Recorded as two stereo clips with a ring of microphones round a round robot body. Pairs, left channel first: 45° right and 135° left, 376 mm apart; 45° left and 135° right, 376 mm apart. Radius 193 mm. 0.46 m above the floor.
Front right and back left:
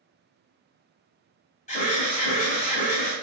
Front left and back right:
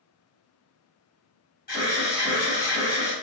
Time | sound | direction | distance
1.7 | an alarm | 5° left | 1.1 m